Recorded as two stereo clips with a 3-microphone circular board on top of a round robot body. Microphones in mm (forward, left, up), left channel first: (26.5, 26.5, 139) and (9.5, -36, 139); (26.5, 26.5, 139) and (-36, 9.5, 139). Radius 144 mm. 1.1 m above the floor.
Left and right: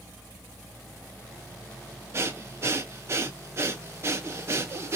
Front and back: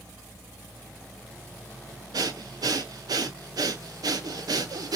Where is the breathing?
155° right, 0.7 m.